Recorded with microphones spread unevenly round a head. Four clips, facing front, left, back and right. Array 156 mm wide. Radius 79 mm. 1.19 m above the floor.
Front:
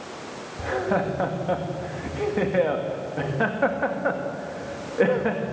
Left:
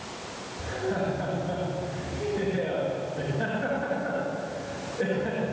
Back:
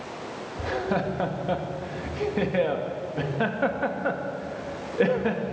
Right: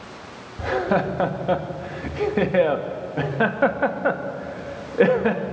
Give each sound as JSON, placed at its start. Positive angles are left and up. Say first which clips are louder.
{"t": 0.6, "sound": "laughter", "louder": "right 8 dB, front 3 dB", "azimuth_deg": -65, "distance_m": 2.5}